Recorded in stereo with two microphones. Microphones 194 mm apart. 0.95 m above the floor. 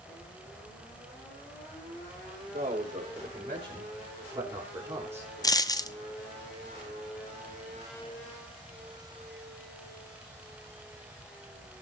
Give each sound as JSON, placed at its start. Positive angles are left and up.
{"t": 2.5, "sound": "a man speaking", "side_deg": -40, "distance_m": 4.5}
{"t": 5.4, "sound": "a dropped coin", "side_deg": 20, "distance_m": 0.6}